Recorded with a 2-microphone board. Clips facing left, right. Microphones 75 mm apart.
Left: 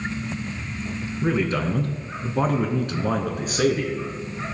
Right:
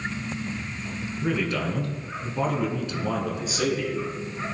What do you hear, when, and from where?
1.2 s a man speaking: 30° left (ahead or behind), 2 m; by 4.1 s 50° left (ahead or behind), 3 m